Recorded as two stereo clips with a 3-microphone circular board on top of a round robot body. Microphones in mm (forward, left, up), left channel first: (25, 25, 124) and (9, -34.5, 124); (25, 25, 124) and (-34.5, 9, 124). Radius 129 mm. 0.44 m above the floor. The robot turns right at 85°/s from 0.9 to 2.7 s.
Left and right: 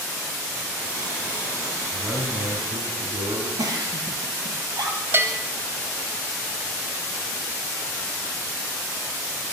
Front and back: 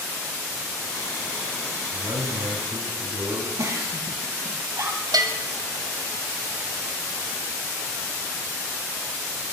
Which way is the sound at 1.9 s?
175° right.